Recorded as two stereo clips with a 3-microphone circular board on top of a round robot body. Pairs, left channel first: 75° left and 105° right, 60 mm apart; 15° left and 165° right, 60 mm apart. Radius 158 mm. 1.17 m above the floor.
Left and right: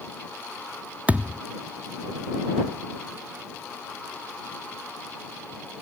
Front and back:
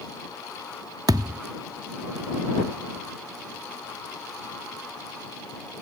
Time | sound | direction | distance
1.1 | a thud | 175° right | ?